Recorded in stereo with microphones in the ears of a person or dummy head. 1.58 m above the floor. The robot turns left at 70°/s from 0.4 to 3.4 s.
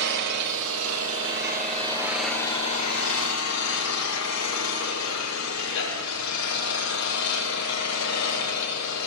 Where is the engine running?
55° right, 6 m; by 9.1 s 95° left, 6 m.